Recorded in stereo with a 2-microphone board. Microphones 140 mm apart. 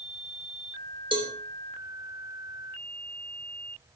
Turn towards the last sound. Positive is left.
turn(degrees=-40)  # may be behind; listen again after turning